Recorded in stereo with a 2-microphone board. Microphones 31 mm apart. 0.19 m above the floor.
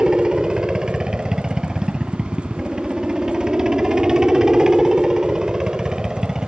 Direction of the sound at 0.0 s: 20° right (ahead or behind).